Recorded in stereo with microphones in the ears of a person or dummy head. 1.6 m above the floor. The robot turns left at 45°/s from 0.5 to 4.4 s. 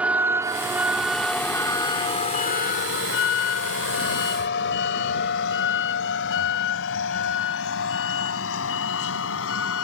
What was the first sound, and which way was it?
A vehicle, 5° right (ahead or behind).